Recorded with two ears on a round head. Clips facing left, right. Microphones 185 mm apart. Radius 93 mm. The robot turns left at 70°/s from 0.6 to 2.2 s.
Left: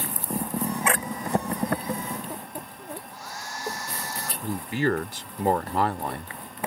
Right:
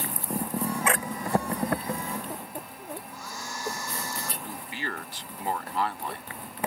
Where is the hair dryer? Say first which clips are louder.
Even; 75° right (ahead or behind).